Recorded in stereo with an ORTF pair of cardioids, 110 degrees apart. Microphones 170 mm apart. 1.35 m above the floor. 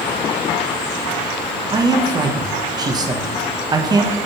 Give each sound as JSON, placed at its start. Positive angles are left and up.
{"t": 1.7, "sound": "a man speaking", "azimuth_deg": -25, "distance_m": 1.0}